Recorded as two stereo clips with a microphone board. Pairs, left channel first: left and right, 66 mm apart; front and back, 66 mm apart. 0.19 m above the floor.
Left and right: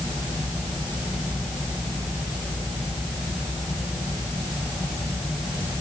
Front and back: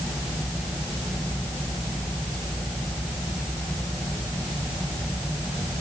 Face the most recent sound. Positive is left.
No sound to turn to.